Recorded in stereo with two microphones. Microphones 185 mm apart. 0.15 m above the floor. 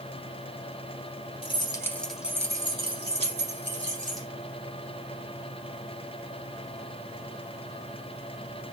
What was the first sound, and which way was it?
Keys jangling, 30° left (ahead or behind).